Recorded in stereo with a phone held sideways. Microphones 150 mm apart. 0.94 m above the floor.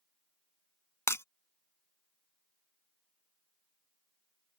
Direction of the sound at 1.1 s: 20° left (ahead or behind).